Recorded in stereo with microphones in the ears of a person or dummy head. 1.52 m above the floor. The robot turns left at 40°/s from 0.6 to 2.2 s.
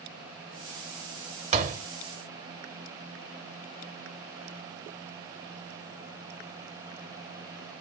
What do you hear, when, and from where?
1.5 s a door slam: 35° right (ahead or behind), 0.9 m; by 1.9 s 50° right (ahead or behind), 0.9 m